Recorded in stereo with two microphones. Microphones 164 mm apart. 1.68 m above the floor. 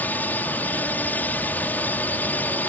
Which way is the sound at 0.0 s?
10° left (ahead or behind).